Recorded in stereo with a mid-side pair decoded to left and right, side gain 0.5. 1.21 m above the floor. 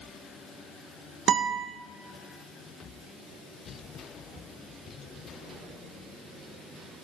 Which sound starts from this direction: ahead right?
A guitar, at 1.3 s.